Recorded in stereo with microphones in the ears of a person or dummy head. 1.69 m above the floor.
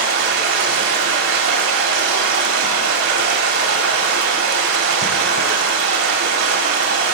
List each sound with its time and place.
0.0 s running water: 65° right (ahead or behind), 3.5 m